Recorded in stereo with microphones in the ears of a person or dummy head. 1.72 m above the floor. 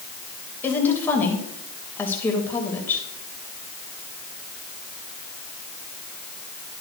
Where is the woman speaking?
10° left (ahead or behind), 2.5 m.